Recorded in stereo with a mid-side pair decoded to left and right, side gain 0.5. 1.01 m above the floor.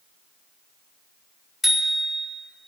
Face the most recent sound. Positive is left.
turn(degrees=25)